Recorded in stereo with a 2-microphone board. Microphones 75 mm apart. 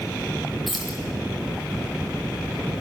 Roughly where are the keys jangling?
Centre.